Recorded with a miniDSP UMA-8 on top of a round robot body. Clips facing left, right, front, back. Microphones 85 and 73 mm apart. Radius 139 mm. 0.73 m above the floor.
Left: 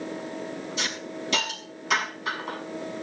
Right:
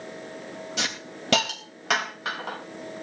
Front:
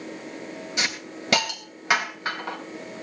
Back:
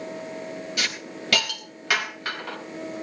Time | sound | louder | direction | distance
0.8 | a hiss | left 1 dB, front 4 dB | 65° right | 4 m